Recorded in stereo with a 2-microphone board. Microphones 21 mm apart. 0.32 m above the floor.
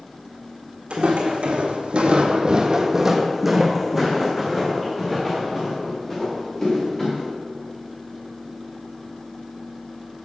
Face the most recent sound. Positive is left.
turn(degrees=25)  # may be behind; listen again after turning